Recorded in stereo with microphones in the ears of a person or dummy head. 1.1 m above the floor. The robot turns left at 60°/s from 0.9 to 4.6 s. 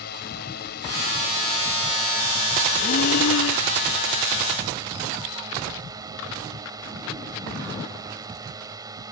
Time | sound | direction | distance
0.0 | a drone | 65° left | ?
2.8 | breathing | 145° left | ?